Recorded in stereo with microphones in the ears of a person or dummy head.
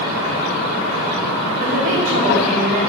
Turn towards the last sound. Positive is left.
turn(degrees=-45)  # may be behind; listen again after turning